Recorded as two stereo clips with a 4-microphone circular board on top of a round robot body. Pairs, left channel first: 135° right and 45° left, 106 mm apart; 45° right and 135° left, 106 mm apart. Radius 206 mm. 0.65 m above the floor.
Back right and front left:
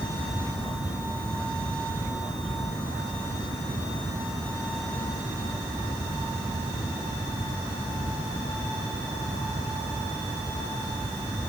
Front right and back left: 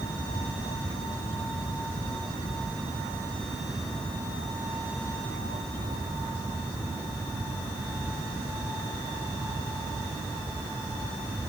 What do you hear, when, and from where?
Only background noise.